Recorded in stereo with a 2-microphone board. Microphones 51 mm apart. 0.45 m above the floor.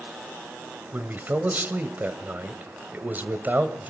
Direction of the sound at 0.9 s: 35° right (ahead or behind).